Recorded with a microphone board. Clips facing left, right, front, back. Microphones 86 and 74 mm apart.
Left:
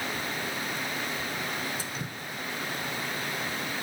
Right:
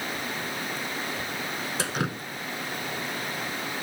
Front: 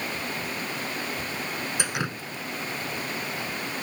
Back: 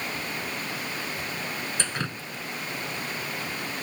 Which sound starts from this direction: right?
Dripping, at 1.8 s.